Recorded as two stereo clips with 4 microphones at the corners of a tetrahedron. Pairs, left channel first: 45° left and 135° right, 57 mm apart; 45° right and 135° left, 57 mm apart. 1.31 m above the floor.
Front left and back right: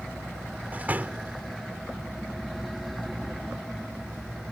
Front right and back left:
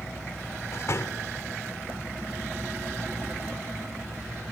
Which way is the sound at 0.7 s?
75° right.